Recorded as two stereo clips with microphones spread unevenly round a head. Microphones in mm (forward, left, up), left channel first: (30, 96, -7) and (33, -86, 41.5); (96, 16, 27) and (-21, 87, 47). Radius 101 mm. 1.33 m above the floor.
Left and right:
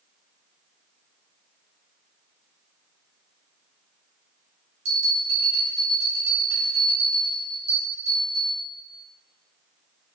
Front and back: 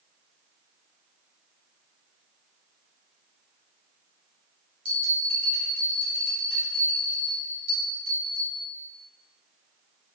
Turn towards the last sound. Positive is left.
turn(degrees=-155)